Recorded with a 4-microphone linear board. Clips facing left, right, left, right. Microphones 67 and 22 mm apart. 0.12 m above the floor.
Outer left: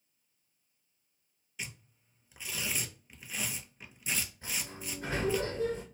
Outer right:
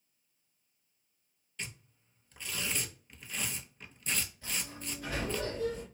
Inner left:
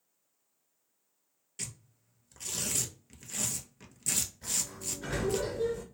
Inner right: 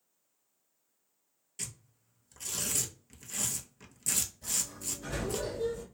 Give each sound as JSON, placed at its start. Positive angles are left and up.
{"t": 1.6, "sound": "tearing paper", "side_deg": 10, "distance_m": 0.6}
{"t": 4.4, "sound": "a sliding door", "side_deg": 30, "distance_m": 1.9}